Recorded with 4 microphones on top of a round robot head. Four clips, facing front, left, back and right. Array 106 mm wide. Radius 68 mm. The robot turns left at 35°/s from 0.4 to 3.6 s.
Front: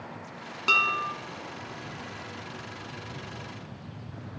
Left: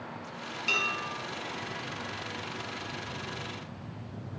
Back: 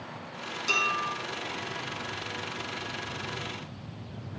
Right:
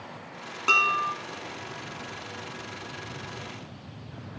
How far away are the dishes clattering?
About 3 m.